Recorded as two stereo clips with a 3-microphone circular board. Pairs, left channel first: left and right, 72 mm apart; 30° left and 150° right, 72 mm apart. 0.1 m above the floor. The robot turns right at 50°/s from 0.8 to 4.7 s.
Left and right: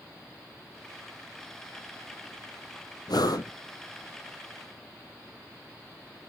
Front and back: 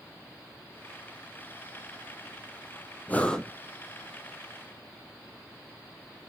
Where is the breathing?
95° left, 0.9 m; by 3.5 s 115° left, 0.9 m.